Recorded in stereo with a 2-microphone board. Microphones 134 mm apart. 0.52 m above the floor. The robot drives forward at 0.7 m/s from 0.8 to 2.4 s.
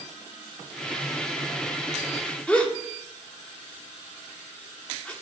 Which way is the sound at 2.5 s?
10° left (ahead or behind).